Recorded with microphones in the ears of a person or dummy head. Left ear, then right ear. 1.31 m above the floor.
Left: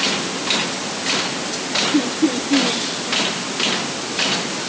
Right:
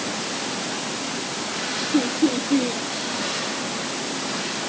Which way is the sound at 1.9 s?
10° right (ahead or behind).